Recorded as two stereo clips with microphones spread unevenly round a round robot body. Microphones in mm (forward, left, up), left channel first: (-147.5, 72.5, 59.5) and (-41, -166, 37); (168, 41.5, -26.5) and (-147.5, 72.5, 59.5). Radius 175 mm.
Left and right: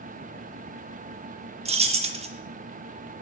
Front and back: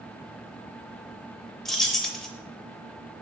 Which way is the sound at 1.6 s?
60° right.